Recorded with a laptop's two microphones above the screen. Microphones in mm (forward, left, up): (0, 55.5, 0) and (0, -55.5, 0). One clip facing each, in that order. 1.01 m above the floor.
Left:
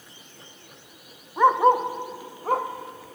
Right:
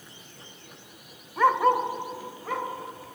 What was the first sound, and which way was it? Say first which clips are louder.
A dog barking: left 3 dB; 15° left (ahead or behind).